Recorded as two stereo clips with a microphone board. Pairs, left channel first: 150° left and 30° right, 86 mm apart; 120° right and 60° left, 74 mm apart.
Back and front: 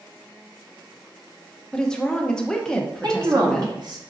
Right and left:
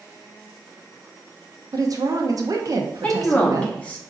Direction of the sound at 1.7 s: 70° left.